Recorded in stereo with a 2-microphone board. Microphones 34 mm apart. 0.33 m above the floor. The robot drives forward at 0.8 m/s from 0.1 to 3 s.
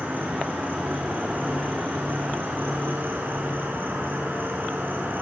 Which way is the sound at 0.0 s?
60° right (ahead or behind).